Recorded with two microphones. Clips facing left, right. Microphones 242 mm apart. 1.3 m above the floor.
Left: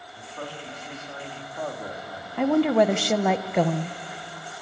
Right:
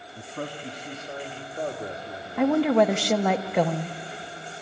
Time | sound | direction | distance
0.2 | a man speaking | 45° right (ahead or behind) | 2 m
2.4 | a woman speaking | centre (ahead or behind) | 0.6 m